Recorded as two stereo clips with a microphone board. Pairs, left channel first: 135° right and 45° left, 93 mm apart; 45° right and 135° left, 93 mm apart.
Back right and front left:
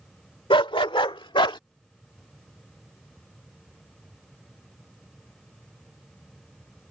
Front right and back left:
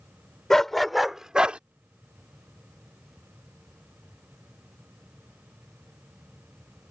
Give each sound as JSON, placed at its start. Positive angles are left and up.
{"t": 0.5, "sound": "a dog barking", "azimuth_deg": -130}